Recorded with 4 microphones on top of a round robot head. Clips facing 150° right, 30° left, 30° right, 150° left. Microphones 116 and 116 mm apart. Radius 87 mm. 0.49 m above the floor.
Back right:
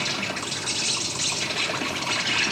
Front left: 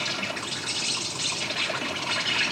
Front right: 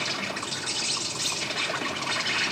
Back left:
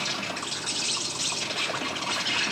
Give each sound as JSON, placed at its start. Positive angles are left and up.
{"t": 0.0, "sound": "an insect", "azimuth_deg": -145, "distance_m": 1.5}